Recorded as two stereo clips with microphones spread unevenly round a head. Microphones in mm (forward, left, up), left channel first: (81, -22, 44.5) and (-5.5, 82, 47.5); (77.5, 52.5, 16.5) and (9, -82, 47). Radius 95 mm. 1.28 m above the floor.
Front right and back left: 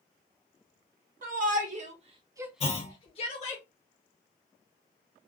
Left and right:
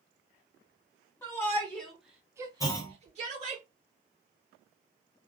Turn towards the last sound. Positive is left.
turn(degrees=-10)